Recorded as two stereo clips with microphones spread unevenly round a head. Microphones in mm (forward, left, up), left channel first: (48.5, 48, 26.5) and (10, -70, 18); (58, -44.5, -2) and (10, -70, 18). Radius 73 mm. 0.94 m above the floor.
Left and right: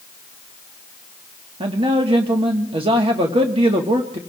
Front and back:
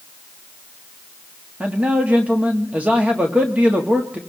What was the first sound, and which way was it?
A man speaking, 75° right.